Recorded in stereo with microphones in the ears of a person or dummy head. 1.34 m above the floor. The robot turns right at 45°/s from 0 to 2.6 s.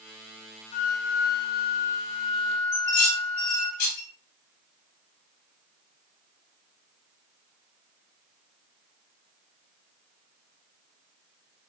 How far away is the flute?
About 0.5 m.